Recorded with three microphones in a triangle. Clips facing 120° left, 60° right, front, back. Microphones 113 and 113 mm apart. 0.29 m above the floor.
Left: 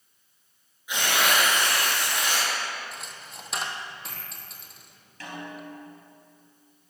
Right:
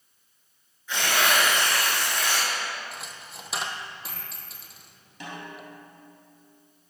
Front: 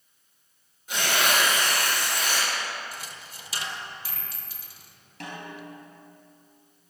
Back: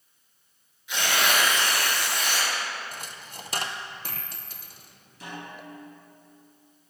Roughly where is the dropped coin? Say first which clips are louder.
Right 1 dB, back 1 dB; behind right.